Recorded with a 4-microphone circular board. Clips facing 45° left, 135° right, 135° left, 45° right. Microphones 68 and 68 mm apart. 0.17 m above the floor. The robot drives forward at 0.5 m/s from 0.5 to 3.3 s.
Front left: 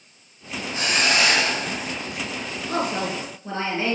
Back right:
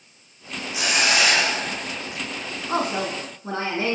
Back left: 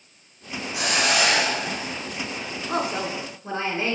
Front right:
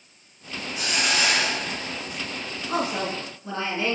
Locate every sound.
0.7 s a hiss: 145° left, 1.5 m; by 2.2 s 155° left, 2 m
2.7 s a woman speaking: 155° right, 1.3 m; by 4.0 s 160° right, 1.4 m